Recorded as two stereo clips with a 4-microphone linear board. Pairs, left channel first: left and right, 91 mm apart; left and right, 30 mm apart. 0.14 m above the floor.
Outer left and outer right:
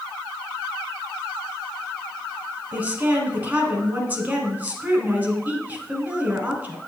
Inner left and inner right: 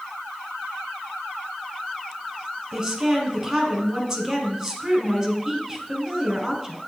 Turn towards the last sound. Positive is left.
turn(degrees=-20)  # may be behind; listen again after turning